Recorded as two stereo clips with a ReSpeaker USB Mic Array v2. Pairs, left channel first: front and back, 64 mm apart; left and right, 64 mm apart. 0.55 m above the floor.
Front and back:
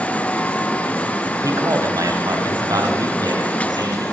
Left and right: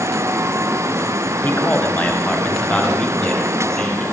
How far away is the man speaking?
About 4 m.